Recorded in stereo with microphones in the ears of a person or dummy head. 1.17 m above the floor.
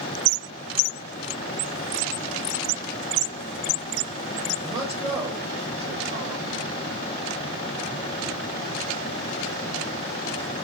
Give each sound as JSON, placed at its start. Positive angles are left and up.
{"t": 4.6, "sound": "a man speaking", "side_deg": -25, "distance_m": 1.0}